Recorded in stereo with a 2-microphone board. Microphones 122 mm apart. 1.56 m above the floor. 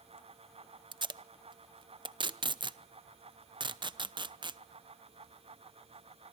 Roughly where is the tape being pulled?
Right.